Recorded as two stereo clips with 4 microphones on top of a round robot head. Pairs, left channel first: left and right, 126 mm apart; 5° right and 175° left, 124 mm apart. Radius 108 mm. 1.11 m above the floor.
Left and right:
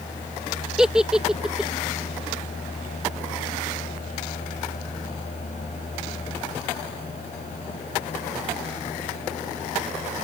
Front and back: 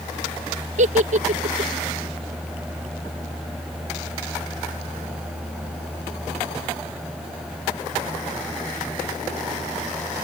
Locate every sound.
0.8 s a giggle: 175° right